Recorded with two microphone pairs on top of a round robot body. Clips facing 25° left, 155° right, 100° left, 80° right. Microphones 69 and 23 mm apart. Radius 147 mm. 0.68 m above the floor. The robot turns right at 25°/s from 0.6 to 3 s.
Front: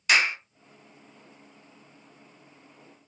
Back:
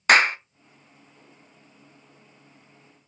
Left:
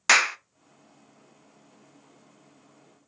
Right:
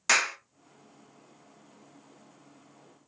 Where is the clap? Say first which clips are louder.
Back 6 dB, left 5 dB; 165° left, 0.6 m.